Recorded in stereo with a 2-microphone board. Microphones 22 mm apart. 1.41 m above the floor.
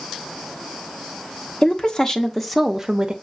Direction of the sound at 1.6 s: 40° left (ahead or behind).